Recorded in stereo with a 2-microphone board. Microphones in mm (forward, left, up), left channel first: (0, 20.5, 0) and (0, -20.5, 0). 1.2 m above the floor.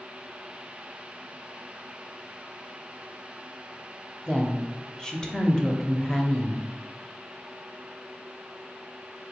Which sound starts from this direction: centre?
A woman speaking, at 4.3 s.